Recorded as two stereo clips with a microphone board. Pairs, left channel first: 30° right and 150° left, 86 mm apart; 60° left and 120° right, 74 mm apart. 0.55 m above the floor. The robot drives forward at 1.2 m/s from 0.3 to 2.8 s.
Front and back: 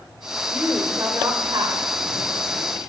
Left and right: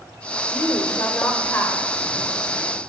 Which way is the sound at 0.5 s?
80° left.